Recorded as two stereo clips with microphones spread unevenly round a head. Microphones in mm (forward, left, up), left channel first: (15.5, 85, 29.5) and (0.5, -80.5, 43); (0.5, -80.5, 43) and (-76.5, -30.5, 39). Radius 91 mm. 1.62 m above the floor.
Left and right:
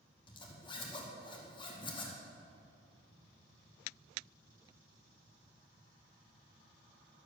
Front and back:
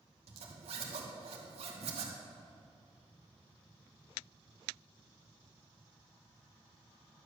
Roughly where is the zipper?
Behind left.